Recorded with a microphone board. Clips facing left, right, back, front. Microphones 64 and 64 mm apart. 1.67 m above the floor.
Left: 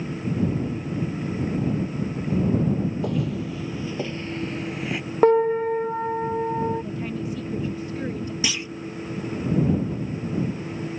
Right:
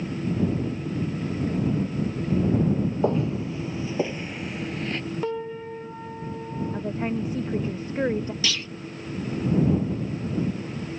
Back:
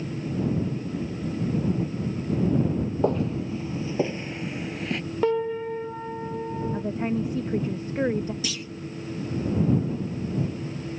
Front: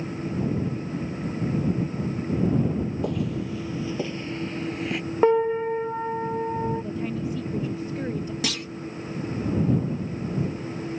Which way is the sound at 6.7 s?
140° right.